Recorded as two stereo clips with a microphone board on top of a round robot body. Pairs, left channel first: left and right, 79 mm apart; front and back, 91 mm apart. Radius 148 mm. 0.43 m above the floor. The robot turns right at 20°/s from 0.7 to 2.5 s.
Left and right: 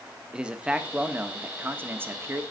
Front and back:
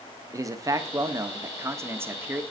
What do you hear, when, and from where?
0.3 s a man speaking: 160° right, 1.5 m; by 2.4 s 125° right, 1.5 m